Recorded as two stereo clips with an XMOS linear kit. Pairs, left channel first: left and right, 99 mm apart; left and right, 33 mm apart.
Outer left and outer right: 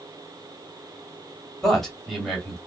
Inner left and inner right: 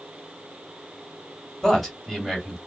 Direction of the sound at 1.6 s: 5° left (ahead or behind).